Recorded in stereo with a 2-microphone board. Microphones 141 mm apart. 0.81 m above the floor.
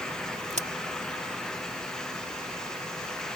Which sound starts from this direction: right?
A crack, at 0.5 s.